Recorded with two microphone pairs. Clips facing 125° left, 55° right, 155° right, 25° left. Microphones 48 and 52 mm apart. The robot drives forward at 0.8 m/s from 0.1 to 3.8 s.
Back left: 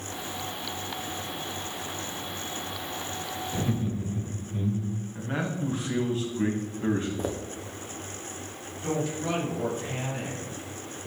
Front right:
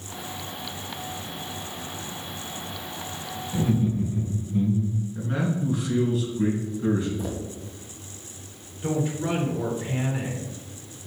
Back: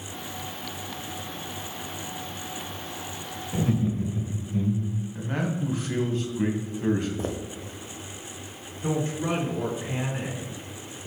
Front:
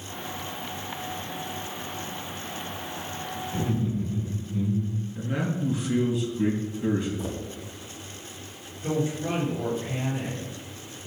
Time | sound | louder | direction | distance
3.5 | laughter | front right 7 dB, back 3 dB | 155° right | 1.3 m
5.2 | a man speaking | front right 4 dB, even | 170° left | 2.5 m
7.2 | footsteps | even, back 2 dB | 165° left | 1.3 m
8.8 | a woman speaking | front right 3 dB, even | 130° right | 4 m